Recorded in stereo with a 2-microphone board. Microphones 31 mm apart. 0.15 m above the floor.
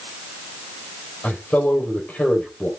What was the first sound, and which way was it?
A man speaking, 75° left (ahead or behind).